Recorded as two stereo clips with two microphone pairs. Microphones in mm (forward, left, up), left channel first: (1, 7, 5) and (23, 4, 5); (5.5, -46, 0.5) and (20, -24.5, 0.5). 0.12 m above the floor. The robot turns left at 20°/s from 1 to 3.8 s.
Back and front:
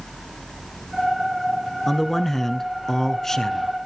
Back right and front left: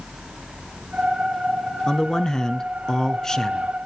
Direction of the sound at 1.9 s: 115° right.